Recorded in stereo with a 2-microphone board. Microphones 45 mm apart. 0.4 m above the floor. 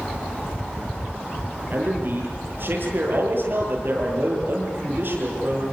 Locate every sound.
1.7 s a man speaking: 55° right (ahead or behind), 9.5 m